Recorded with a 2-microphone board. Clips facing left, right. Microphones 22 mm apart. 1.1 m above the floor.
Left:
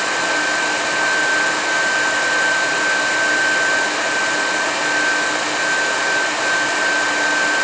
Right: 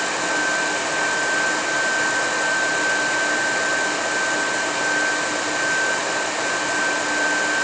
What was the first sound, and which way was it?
Only background noise.